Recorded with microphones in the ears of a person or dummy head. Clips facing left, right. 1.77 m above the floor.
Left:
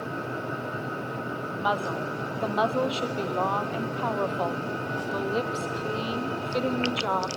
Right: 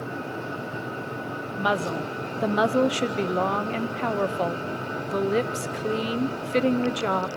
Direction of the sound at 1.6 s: 30° right (ahead or behind).